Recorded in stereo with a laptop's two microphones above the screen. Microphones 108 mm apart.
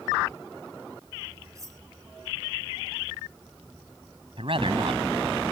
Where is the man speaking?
55° right (ahead or behind).